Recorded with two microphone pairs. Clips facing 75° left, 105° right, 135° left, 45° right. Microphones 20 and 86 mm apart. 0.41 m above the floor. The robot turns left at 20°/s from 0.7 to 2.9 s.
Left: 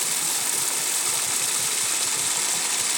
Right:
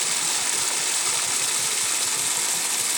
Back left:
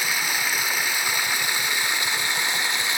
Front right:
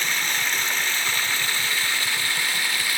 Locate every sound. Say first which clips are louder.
0.0 s running water: right 2 dB, even; 160° right, 1.1 m; by 3.0 s 155° left, 1.1 m